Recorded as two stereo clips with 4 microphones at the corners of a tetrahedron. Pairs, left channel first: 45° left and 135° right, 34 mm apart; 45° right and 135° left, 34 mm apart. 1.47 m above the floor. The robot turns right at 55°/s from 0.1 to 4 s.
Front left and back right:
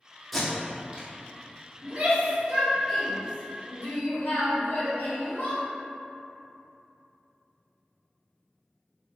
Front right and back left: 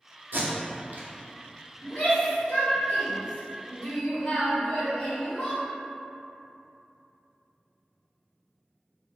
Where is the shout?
95° right, 1.3 m; by 5.6 s 25° left, 1.3 m.